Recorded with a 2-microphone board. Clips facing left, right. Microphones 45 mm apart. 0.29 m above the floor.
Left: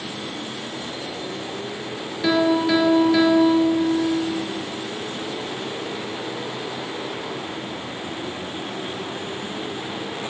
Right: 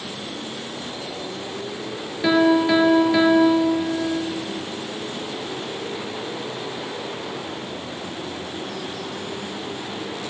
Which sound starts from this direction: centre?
A piano, at 2.2 s.